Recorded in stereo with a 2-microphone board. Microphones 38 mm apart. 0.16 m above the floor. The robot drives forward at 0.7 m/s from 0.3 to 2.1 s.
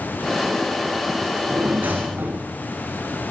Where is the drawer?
80° right, 3.5 m; by 2.5 s 70° right (ahead or behind), 4 m.